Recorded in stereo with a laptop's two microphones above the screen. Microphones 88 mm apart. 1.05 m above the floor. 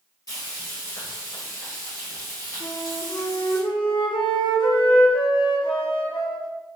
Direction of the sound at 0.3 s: 45° left (ahead or behind).